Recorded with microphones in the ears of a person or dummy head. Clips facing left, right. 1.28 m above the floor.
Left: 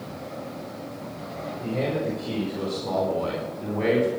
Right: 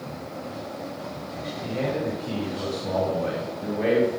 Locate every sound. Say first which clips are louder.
1.6 s a man speaking: left 1 dB; 65° left (ahead or behind), 6 m; by 4.1 s 85° left, 3.5 m